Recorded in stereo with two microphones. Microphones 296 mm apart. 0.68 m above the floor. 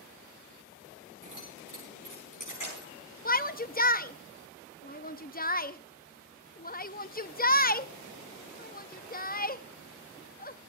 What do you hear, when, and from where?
1.2 s keys jangling: 85° left, 9 m; by 2.9 s 75° left (ahead or behind), 8.5 m
3.2 s a shout: 30° left (ahead or behind), 0.6 m